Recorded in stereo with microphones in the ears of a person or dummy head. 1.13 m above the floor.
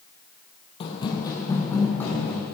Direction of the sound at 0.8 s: 30° left (ahead or behind).